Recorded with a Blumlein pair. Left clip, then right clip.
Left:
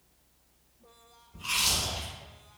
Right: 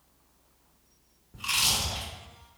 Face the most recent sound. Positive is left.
turn(degrees=-65)